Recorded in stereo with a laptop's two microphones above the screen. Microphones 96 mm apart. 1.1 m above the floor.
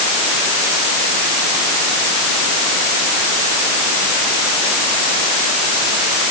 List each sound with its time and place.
Only background noise.